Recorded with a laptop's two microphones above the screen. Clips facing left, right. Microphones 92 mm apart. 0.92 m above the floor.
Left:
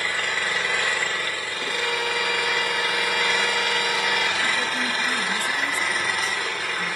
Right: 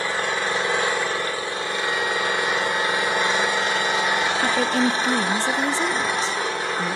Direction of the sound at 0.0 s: 25° right (ahead or behind).